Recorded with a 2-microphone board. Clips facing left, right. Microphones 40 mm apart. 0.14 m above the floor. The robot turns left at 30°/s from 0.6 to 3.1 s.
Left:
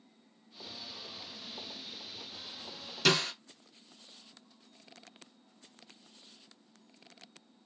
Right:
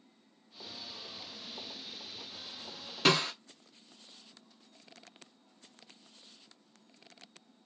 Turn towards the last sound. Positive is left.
turn(degrees=-30)  # may be behind; listen again after turning